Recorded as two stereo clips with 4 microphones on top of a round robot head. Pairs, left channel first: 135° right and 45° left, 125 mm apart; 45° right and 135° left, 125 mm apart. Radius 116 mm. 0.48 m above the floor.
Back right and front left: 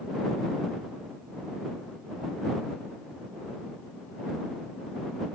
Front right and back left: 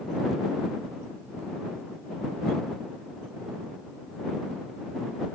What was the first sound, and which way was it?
Only background noise.